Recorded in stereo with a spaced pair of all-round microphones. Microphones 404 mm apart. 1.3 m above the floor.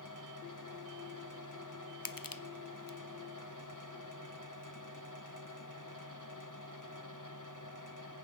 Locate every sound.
0.0 s a fan: 50° left (ahead or behind), 1.7 m
2.0 s crushing: 55° left (ahead or behind), 0.7 m